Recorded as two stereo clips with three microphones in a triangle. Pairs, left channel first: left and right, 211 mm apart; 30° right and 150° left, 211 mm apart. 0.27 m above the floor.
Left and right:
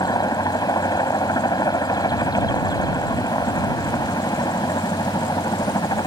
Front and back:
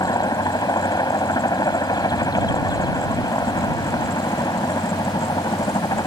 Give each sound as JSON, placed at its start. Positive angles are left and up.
{"t": 0.0, "sound": "a helicopter", "azimuth_deg": 30}